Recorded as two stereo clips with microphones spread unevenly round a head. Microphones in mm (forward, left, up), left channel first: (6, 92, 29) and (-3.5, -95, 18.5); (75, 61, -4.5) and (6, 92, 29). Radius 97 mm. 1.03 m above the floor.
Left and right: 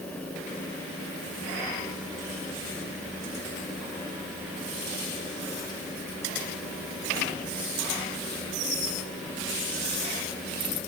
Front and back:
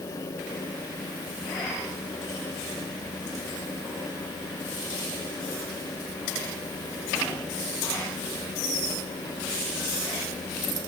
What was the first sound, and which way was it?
Only background noise.